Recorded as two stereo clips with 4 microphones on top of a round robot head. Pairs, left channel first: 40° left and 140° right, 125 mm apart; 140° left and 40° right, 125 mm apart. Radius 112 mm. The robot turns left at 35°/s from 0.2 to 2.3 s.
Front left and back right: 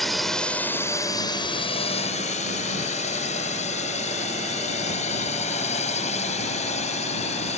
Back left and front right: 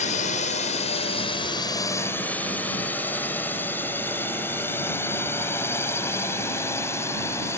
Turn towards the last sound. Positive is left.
turn(degrees=70)